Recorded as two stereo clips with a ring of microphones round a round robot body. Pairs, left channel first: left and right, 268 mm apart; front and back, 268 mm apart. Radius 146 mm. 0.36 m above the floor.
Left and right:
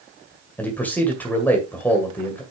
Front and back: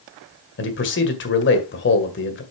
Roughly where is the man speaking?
Ahead.